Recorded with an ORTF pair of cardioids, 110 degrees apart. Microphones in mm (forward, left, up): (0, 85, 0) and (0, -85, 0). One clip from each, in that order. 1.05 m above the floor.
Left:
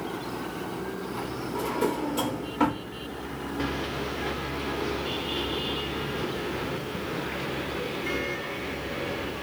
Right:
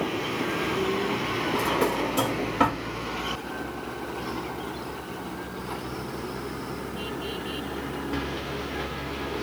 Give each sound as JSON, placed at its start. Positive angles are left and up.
{"t": 1.6, "sound": "a drawer", "azimuth_deg": -25, "distance_m": 1.3}